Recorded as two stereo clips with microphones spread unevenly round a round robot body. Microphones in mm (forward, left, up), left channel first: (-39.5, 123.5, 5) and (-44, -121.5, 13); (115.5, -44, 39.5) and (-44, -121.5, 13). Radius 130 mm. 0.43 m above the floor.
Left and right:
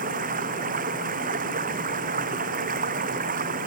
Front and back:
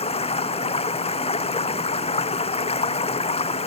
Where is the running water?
30° right.